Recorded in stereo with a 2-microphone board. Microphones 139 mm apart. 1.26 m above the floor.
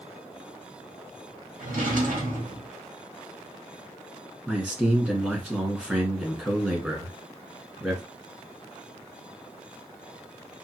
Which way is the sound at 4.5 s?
10° right (ahead or behind).